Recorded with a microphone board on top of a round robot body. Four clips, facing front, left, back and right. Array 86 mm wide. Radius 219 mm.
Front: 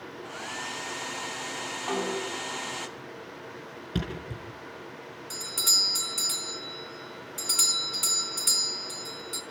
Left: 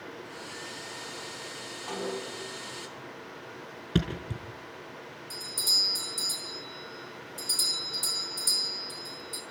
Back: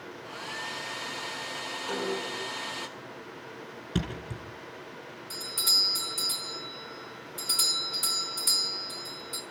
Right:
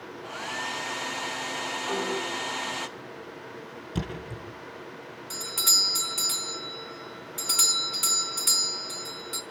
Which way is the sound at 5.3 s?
65° right.